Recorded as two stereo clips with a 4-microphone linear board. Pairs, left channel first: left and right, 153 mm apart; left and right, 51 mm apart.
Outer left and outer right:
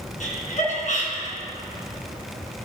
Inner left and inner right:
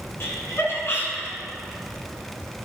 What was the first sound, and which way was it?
Laughter, 55° left (ahead or behind).